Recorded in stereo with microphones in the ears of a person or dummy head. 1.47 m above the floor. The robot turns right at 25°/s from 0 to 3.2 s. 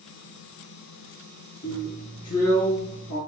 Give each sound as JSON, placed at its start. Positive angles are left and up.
{"t": 1.6, "sound": "a drill", "azimuth_deg": 80, "distance_m": 3.0}